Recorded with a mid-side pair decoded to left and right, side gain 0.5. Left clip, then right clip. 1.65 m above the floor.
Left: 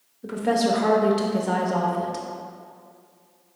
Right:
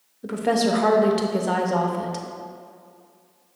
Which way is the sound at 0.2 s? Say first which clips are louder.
Right 1 dB; 20° right.